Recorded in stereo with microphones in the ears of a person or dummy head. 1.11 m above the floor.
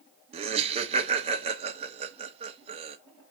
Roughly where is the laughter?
Right.